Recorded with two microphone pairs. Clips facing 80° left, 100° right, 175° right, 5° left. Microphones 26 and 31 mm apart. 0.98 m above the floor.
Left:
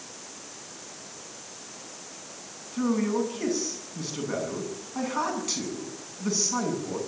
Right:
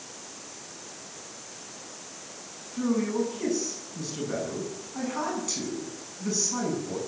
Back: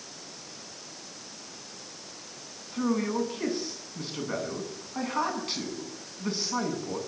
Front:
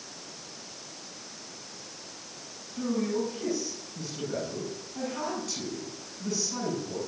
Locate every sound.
2.7 s a man speaking: 145° left, 9 m